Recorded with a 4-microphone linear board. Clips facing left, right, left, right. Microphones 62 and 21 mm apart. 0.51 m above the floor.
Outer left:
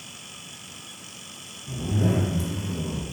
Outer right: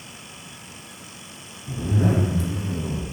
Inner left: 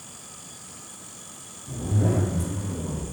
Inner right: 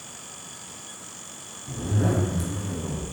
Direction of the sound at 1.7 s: 75° right (ahead or behind).